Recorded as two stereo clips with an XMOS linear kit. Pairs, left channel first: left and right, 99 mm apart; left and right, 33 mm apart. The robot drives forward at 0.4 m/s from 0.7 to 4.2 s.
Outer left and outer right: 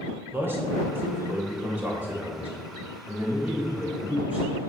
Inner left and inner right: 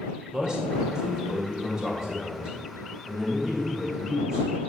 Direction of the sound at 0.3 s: 20° right (ahead or behind).